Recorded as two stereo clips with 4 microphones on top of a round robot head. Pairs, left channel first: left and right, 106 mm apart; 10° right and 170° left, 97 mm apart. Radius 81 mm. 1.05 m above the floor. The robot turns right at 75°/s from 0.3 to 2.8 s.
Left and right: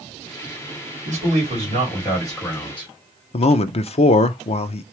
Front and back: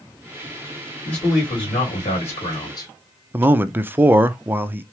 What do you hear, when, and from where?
1.1 s a man speaking: 90° right, 2.5 m; by 2.9 s 40° left, 2.5 m
3.3 s a man speaking: 100° left, 0.6 m